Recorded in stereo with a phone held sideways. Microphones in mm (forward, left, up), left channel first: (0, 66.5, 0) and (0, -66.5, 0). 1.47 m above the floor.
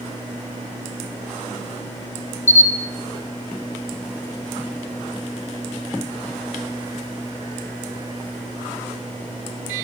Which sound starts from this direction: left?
A camera shutter, at 2.5 s.